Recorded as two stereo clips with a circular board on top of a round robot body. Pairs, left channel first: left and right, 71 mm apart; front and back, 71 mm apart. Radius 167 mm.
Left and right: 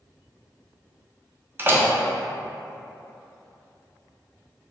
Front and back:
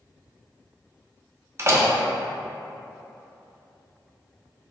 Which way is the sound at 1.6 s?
140° right.